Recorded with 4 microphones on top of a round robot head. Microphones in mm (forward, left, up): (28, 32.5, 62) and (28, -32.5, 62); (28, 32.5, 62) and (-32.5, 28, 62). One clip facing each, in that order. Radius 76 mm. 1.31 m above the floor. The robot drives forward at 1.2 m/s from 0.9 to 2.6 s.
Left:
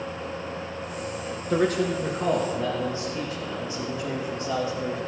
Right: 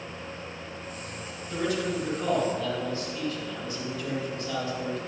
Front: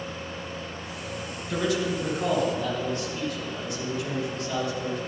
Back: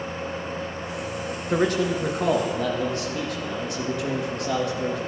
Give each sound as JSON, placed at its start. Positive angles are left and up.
{"t": 1.5, "sound": "a man speaking", "azimuth_deg": 125, "distance_m": 0.8}